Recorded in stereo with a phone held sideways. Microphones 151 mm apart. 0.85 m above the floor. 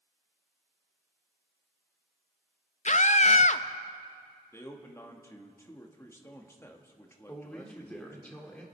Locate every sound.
2.9 s a scream: 50° left (ahead or behind), 0.5 m
4.5 s a man speaking: 15° left (ahead or behind), 1.4 m
7.3 s a man speaking: 10° left (ahead or behind), 2.0 m